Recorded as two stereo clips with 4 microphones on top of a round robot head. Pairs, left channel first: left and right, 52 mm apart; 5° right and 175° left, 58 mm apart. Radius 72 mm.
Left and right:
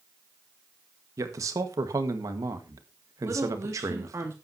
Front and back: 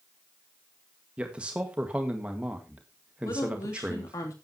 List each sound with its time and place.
1.2 s a man speaking: 110° right, 1.7 m
3.2 s a woman speaking: 40° right, 3 m